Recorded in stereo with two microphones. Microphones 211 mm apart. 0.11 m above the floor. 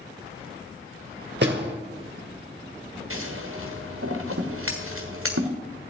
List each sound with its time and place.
1.4 s a door slam: 55° right (ahead or behind), 1.9 m
3.1 s scissors: 80° right, 1.6 m